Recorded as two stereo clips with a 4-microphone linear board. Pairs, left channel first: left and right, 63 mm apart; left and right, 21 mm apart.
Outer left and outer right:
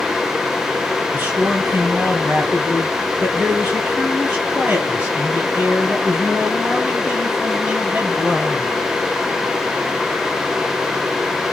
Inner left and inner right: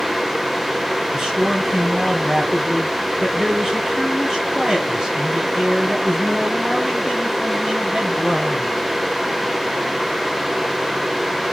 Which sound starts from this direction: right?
A man speaking, at 1.1 s.